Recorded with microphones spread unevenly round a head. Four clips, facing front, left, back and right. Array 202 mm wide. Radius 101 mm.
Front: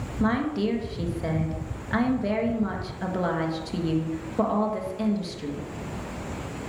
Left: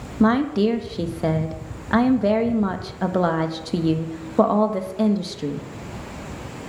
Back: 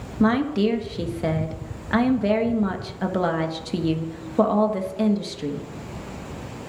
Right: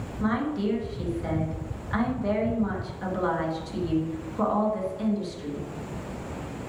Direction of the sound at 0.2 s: 115° left.